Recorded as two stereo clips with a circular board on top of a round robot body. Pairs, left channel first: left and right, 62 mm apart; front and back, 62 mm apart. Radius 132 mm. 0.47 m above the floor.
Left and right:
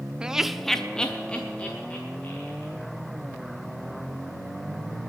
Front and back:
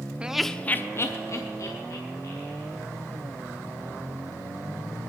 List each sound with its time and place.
0.2 s laughter: 140° right, 0.7 m; by 2.7 s 25° left, 2.5 m